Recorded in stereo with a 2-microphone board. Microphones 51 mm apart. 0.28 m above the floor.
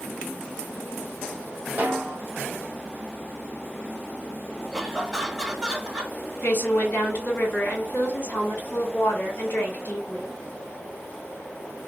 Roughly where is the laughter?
Centre.